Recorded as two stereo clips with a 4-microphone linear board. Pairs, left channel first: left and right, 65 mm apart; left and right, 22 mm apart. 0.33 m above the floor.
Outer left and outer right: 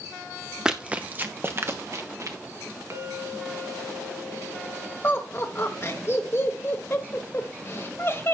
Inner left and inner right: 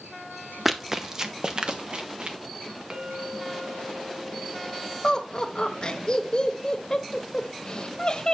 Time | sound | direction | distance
0.7 | running footsteps | 10° right (ahead or behind) | 0.9 m
2.9 | a clink | 50° right (ahead or behind) | 1.8 m
5.0 | laughter | 40° left (ahead or behind) | 1.2 m